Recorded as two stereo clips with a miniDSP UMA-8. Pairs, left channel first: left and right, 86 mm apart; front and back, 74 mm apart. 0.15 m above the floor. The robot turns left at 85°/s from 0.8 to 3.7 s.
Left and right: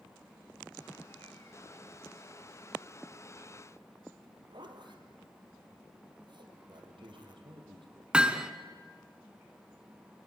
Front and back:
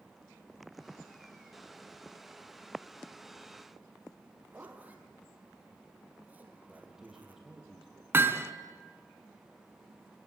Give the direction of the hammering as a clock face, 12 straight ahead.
5 o'clock.